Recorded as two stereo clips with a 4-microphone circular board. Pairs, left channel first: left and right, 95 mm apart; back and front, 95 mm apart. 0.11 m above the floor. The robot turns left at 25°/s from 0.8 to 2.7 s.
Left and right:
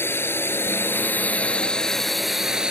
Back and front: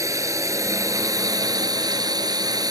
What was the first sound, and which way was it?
A drone, 35° left.